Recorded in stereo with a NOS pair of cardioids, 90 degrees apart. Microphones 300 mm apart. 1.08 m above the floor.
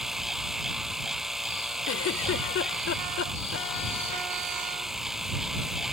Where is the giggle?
50° left.